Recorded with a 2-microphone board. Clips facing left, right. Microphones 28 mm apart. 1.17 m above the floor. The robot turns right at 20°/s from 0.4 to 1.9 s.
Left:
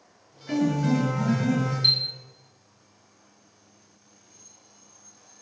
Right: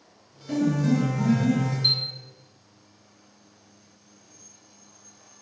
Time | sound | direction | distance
0.5 | a piano | 40° left (ahead or behind) | 1.8 m
1.8 | a chime | 30° left (ahead or behind) | 0.5 m